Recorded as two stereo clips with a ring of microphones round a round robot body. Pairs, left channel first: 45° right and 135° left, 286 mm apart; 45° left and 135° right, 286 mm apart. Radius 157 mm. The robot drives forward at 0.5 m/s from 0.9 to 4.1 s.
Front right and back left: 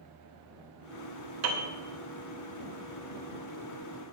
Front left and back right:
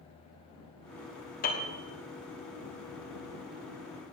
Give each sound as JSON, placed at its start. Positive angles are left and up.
{"t": 1.4, "sound": "a piano", "azimuth_deg": 105, "distance_m": 2.5}